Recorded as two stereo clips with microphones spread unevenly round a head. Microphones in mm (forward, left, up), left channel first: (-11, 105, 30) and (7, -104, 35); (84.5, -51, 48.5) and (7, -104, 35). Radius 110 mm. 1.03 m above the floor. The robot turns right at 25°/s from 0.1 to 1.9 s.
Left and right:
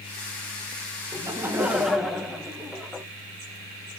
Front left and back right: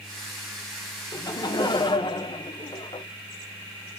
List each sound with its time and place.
1.1 s laughter: 15° right, 1.1 m; by 3.1 s 5° left, 1.1 m